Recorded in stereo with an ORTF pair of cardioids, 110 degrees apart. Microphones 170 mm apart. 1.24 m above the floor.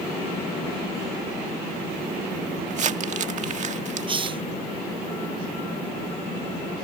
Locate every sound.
2.7 s crumpling: 45° right
4.1 s a hiss: 30° right